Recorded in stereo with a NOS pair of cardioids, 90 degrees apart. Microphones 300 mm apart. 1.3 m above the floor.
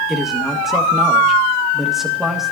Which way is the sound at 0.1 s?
Straight ahead.